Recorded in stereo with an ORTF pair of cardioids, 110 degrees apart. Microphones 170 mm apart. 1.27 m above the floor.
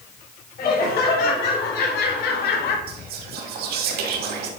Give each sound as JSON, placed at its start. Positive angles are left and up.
{"t": 0.6, "sound": "laughter", "azimuth_deg": 65, "distance_m": 3.5}
{"t": 2.9, "sound": "whispering", "azimuth_deg": -70, "distance_m": 2.5}